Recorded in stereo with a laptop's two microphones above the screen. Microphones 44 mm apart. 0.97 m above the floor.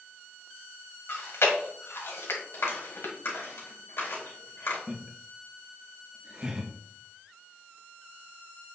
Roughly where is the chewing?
Left.